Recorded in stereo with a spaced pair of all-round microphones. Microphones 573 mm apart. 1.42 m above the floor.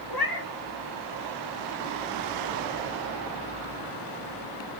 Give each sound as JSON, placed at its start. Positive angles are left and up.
{"t": 0.1, "sound": "a cat meowing", "side_deg": 40, "distance_m": 1.1}